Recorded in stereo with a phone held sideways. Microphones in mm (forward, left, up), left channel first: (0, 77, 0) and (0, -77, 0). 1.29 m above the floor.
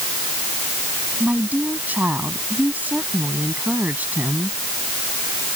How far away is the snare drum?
No snare drum in this recording.